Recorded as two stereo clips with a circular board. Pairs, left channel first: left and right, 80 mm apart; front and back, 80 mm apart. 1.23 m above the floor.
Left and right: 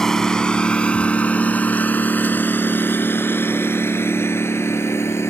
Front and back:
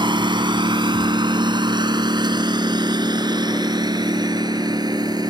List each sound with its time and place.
0.0 s a lawn mower: 175° left; by 5.3 s 145° left